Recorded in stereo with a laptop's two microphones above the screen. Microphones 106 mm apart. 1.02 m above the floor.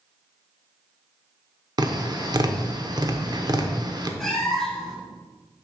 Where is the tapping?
40° right (ahead or behind), 0.7 m.